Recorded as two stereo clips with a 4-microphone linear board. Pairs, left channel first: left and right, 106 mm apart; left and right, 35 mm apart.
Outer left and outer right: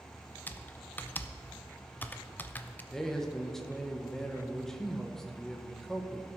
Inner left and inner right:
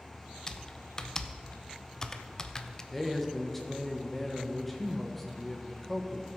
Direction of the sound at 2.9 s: 5° left (ahead or behind).